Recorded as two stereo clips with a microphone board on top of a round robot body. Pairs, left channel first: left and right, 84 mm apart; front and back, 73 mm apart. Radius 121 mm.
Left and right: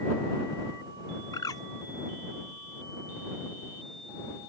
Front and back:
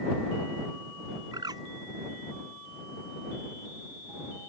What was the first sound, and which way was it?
A bird, 140° left.